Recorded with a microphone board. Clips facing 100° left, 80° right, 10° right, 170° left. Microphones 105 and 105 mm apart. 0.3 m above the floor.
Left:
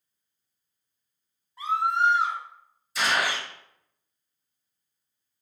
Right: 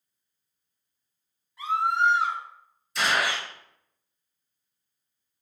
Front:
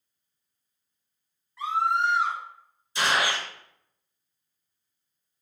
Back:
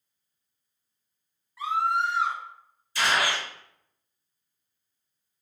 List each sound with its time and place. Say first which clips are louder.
1.6 s a scream: even, front 1 dB; 90° left, 1.7 m
3.0 s a gunshot: even, even; 15° left, 0.9 m